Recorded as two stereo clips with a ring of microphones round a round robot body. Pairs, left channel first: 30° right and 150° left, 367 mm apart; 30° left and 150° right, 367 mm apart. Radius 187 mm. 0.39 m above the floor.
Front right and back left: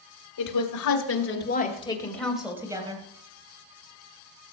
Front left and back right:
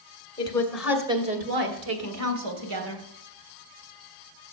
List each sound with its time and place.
0.4 s a woman speaking: 45° right, 2.5 m; by 3.0 s 135° right, 3 m